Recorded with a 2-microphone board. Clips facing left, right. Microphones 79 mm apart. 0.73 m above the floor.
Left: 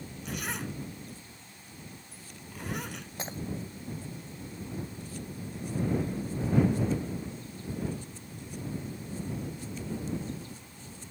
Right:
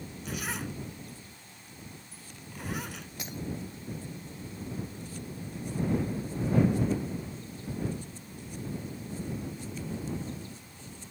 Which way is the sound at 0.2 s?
Centre (ahead or behind).